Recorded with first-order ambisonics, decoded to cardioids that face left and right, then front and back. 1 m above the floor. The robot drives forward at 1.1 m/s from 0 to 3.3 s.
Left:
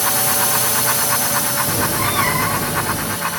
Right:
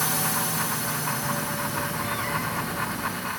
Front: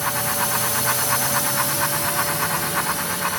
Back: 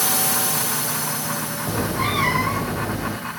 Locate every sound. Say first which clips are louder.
0.0 s a drone: left 7 dB, even; 140° left; by 3.4 s 40° left
1.7 s a cat meowing: left 9 dB, even; 135° left; by 3.2 s 145° left